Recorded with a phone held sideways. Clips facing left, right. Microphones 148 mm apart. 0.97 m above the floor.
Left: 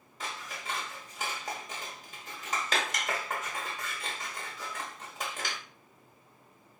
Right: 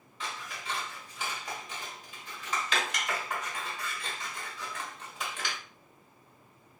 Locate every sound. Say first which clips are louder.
0.2 s scissors: even; 40° left (ahead or behind), 1.0 m